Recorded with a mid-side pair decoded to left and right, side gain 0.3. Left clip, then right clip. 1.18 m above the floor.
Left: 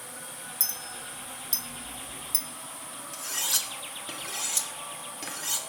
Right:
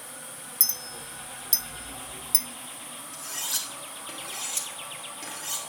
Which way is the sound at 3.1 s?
35° left.